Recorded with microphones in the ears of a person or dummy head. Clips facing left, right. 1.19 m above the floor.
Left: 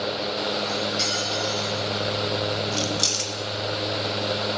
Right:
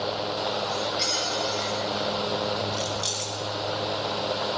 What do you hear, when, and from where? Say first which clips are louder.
0.7 s cutlery clinking: left 2 dB; 45° left (ahead or behind), 9.5 m
2.7 s keys jangling: left 3 dB; 55° left (ahead or behind), 1.2 m